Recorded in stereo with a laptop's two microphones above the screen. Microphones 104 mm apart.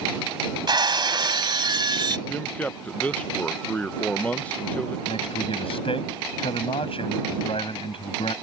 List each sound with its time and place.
0.7 s breaking glass: 50° right (ahead or behind)
2.3 s a man speaking: 15° left (ahead or behind)
5.1 s a man speaking: 70° left (ahead or behind)